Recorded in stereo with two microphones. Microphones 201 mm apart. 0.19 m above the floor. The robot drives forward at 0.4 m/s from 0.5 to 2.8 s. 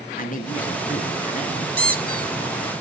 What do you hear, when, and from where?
0.2 s a man speaking: 45° left (ahead or behind), 2.5 m; by 1.7 s 40° left (ahead or behind), 3 m
1.8 s a squeak: 55° right (ahead or behind), 1.0 m; by 2.3 s 45° right (ahead or behind), 1.2 m